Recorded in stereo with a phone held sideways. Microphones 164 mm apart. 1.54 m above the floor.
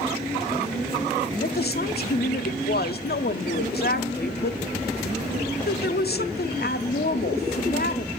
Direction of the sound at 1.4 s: 65° left (ahead or behind).